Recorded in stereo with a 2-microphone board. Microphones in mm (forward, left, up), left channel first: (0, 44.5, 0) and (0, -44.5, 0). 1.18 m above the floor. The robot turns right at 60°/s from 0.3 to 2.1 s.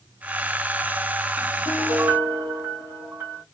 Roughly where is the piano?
Centre.